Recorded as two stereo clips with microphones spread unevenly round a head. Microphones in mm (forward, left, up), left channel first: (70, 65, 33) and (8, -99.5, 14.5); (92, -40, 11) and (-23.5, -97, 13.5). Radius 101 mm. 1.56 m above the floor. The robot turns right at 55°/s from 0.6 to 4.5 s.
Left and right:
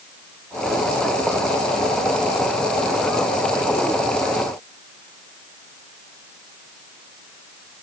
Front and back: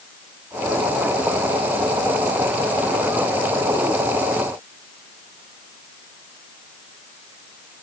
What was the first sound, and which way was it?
Only background noise.